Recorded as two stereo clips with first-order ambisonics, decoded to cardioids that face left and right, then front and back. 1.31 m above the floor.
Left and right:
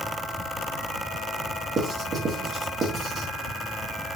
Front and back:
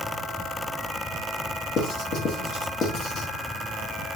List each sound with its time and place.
1.8 s writing: 35° right, 0.8 m